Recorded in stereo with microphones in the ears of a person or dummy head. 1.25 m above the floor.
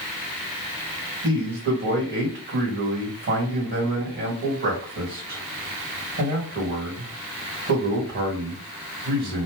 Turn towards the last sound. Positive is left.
turn(degrees=-40)  # may be behind; listen again after turning